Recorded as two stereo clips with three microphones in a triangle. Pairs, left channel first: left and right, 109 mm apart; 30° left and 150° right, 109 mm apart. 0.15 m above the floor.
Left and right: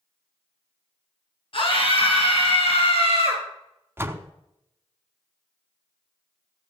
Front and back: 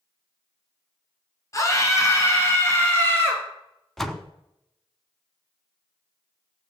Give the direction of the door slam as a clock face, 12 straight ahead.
2 o'clock.